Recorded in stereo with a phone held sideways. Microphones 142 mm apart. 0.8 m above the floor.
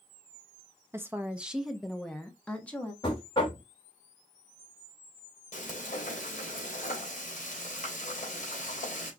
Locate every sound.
0.9 s a woman speaking: 20° right (ahead or behind), 0.7 m; by 2.9 s 10° left (ahead or behind), 1.4 m
3.0 s knocking: 35° left (ahead or behind), 2.5 m
5.5 s frying: 65° left (ahead or behind), 3 m